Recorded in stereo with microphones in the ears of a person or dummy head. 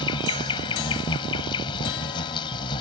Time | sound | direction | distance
0.0 | an insect | 25° left (ahead or behind) | ?